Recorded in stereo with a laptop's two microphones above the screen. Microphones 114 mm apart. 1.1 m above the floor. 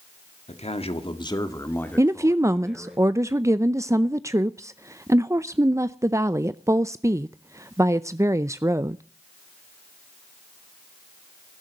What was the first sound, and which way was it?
A man speaking, 75° left (ahead or behind).